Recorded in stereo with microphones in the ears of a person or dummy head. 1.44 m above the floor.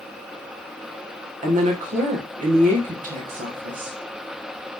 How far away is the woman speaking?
About 1.1 m.